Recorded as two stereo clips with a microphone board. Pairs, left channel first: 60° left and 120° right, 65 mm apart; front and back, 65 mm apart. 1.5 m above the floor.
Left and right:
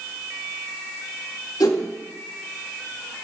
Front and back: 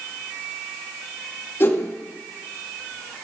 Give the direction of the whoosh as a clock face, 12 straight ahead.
10 o'clock.